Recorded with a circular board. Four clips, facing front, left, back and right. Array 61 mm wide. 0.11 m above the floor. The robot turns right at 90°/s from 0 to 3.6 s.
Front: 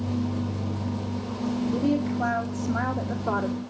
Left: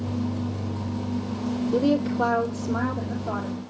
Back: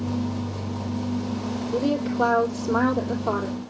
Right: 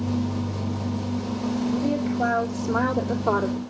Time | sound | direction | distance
1.7 | a woman speaking | 105° left | 3.5 m